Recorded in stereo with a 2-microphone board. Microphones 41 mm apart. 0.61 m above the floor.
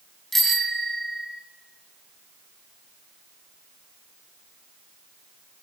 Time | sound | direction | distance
0.3 | a bicycle bell | 10° left (ahead or behind) | 3.5 m